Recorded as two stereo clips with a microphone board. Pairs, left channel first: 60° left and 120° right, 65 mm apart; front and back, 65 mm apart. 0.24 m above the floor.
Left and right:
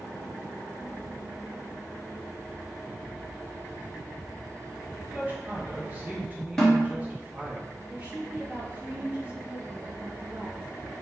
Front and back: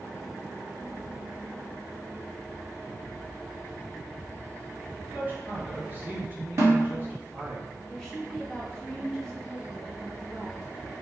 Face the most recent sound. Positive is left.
turn(degrees=-80)